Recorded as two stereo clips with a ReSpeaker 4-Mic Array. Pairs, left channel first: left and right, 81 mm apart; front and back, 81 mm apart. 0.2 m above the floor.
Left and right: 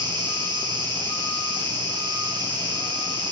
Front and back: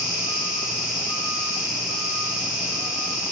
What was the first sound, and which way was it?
An insect, 100° right.